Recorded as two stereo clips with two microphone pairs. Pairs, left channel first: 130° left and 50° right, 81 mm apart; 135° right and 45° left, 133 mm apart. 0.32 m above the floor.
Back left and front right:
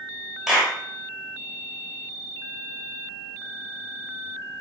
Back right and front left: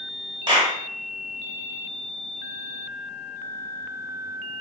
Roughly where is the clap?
Ahead left.